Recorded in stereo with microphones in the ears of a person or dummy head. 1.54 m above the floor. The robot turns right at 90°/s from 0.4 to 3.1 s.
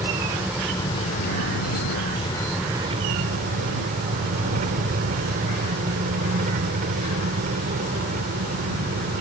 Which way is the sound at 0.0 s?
15° right.